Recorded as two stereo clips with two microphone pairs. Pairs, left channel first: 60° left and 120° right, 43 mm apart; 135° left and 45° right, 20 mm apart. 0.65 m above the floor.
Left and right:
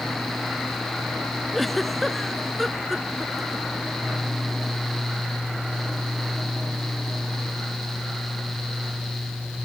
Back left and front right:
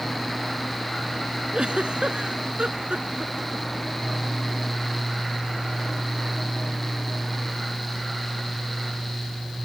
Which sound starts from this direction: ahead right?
A giggle, at 1.5 s.